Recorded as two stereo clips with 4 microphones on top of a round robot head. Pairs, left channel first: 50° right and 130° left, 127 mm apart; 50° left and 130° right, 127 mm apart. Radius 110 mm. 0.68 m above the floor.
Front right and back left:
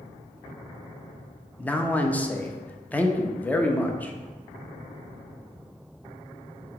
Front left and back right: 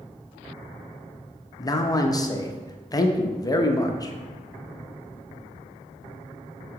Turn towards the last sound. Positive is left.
turn(degrees=20)